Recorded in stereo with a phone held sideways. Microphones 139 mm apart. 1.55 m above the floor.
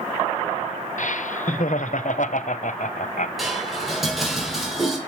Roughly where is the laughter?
Left.